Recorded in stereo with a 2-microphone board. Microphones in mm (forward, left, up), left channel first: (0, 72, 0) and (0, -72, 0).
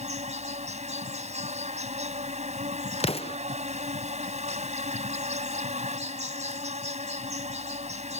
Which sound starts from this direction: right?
An insect, at 0.0 s.